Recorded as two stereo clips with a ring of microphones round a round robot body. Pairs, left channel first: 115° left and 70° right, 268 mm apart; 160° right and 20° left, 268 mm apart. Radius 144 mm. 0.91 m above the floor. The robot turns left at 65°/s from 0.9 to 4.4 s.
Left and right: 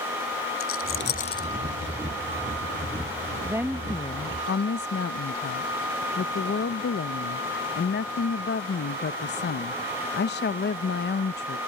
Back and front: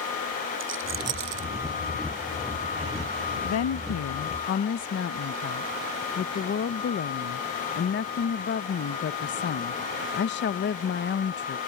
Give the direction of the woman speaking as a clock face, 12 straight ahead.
5 o'clock.